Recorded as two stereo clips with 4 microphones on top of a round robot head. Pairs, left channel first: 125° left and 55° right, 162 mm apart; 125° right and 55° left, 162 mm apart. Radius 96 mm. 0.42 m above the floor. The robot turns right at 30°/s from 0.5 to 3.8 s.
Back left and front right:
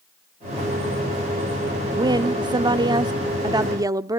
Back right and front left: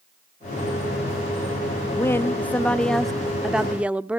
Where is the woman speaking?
75° right, 0.8 m; by 4.2 s 20° right, 0.8 m.